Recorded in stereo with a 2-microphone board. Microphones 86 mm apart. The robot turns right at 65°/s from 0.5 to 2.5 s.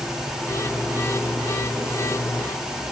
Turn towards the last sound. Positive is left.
No sound to turn to.